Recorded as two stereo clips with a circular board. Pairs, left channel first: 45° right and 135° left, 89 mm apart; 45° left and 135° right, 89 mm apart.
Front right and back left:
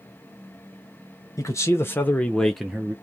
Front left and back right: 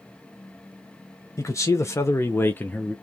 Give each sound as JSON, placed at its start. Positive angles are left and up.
{"t": 1.4, "sound": "a man speaking", "azimuth_deg": 0, "distance_m": 0.9}